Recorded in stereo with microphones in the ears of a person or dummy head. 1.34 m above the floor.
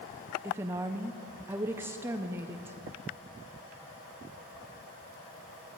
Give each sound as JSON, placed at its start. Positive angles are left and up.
{"t": 0.4, "sound": "a woman speaking", "side_deg": -10, "distance_m": 0.8}